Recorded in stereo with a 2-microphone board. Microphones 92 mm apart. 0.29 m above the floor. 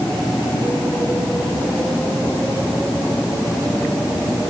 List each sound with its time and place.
Only background noise.